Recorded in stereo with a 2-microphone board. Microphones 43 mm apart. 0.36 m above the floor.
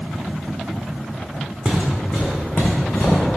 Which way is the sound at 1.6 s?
10° left (ahead or behind).